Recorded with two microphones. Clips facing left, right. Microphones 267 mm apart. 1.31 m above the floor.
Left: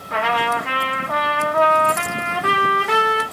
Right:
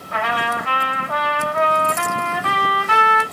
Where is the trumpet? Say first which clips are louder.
Left 2 dB; 80° left, 2 m.